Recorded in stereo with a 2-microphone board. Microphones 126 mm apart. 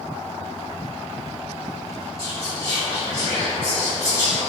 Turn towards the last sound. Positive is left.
turn(degrees=25)  # may be behind; listen again after turning